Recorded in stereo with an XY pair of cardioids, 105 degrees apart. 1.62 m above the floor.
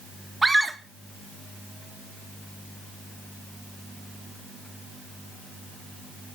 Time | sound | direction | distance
0.4 | a scream | 15° right | 3 m